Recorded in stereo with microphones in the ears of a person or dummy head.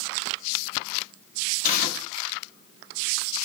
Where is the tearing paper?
55° left (ahead or behind), 1.3 m.